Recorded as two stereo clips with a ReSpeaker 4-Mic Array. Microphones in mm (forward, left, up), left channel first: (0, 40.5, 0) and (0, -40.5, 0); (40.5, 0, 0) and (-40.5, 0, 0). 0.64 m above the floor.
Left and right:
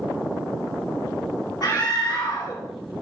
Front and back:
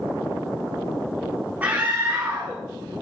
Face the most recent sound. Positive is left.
turn(degrees=110)